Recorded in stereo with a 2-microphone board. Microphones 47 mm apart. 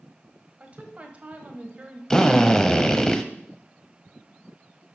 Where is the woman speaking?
30° right (ahead or behind), 1.4 m.